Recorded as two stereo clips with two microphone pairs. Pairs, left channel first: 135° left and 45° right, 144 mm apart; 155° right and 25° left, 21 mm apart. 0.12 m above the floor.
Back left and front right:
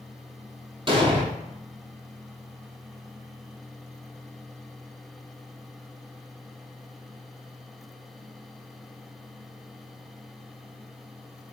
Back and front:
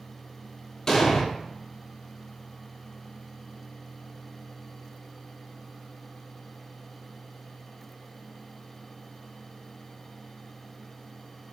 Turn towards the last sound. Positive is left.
turn(degrees=-95)